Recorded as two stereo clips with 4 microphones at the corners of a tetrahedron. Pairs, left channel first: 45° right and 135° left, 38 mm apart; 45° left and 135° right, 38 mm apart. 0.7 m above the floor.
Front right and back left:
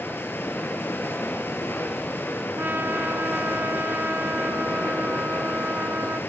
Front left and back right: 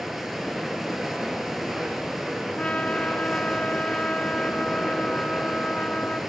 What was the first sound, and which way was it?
Running water, 50° right.